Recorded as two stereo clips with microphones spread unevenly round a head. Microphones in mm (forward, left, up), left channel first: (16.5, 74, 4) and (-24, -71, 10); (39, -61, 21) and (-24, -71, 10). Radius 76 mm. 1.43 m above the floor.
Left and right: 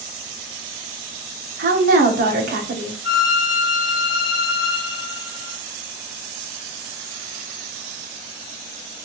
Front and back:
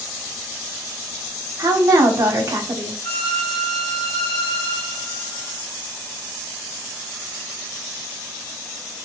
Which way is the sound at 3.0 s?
110° left.